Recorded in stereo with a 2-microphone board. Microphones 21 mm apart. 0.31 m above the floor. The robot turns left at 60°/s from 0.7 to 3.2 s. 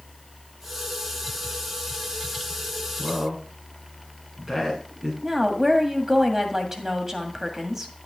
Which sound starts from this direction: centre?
A woman speaking, at 5.2 s.